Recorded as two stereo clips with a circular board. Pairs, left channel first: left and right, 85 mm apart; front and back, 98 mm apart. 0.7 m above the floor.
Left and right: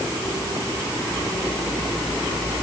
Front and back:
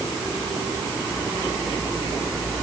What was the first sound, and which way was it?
Only background noise.